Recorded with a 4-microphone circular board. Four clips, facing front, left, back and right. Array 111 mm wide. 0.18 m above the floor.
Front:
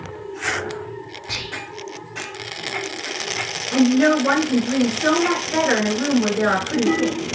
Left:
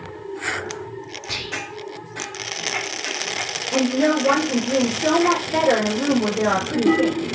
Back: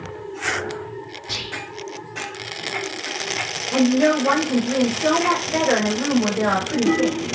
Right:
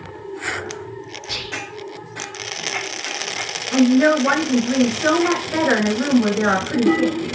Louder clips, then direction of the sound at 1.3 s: Even, front 1 dB; 35° left.